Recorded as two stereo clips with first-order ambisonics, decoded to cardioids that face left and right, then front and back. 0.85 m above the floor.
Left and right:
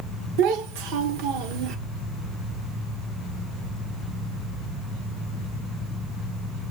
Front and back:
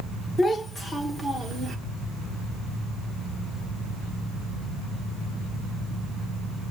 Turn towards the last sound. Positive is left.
turn(degrees=-115)